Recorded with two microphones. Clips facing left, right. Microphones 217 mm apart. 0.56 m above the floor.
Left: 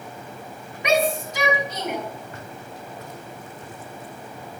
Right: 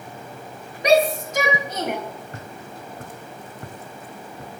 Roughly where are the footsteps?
Right.